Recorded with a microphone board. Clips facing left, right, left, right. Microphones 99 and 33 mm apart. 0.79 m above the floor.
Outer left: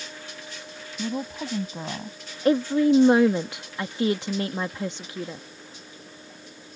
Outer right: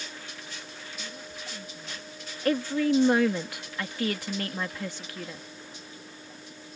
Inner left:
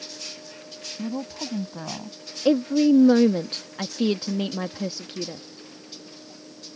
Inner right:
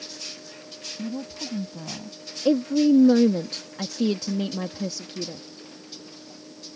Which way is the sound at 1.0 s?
80° left.